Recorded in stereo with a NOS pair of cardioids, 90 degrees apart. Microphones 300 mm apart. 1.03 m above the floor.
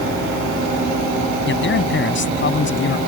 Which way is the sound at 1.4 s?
40° left.